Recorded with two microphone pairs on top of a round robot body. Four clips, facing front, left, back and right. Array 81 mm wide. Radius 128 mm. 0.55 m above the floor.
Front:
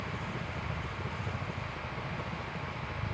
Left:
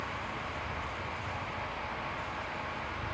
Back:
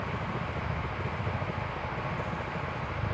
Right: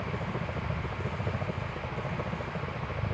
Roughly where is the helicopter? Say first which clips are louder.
Right 3 dB, back 4 dB; right.